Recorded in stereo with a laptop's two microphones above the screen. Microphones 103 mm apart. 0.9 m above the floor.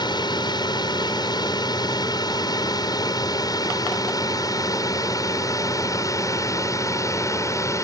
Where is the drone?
45° left (ahead or behind); by 7.8 s 30° left (ahead or behind).